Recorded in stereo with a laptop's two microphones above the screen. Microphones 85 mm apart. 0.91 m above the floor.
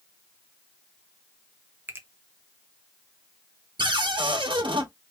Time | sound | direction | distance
1.9 | a finger snap | 25° right (ahead or behind) | 0.7 m
3.8 | a cupboard door | 80° right | 1.5 m